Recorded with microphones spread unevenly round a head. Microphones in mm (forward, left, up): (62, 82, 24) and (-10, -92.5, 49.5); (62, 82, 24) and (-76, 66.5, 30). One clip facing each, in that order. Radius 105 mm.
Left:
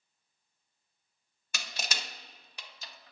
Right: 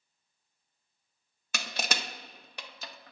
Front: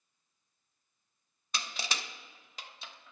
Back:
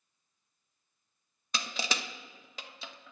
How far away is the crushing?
About 0.8 m.